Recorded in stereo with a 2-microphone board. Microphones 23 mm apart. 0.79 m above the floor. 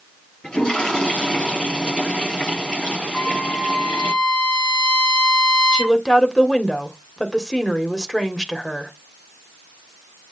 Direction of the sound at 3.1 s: 40° left (ahead or behind).